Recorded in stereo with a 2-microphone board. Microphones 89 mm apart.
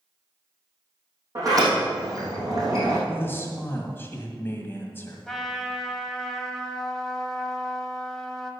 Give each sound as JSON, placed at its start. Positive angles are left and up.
{"t": 1.4, "sound": "a sliding door", "side_deg": -40, "distance_m": 4.0}
{"t": 3.1, "sound": "a man speaking", "side_deg": 25, "distance_m": 1.8}
{"t": 5.3, "sound": "a trumpet", "side_deg": 5, "distance_m": 1.3}